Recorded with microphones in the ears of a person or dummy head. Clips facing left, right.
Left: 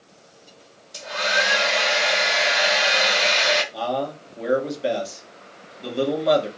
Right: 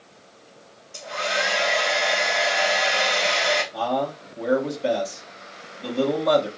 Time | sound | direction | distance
0.9 | a hair dryer | 20° left (ahead or behind) | 1.7 m
3.7 | a man speaking | 5° left (ahead or behind) | 1.4 m